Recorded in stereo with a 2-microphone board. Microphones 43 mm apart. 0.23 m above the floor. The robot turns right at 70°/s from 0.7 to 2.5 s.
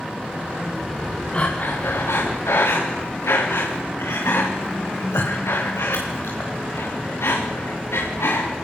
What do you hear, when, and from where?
1.3 s breathing: 25° left (ahead or behind), 4.5 m; by 8.5 s 75° left (ahead or behind), 4.5 m